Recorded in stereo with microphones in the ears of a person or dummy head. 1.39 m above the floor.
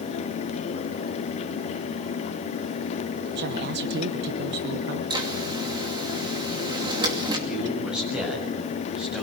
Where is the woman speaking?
50° right (ahead or behind), 1.0 m.